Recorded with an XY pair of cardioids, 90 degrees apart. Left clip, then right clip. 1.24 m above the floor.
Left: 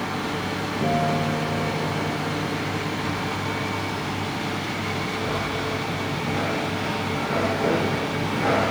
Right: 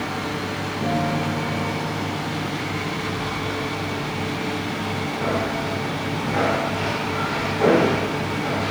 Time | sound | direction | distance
0.8 | a guitar | 20° left | 6.5 m